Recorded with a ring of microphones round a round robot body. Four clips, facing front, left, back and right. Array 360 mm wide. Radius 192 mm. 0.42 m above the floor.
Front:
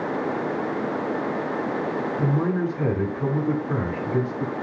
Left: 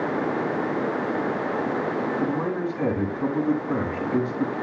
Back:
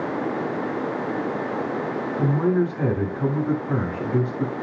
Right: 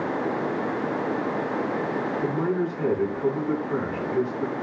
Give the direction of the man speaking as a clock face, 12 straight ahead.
7 o'clock.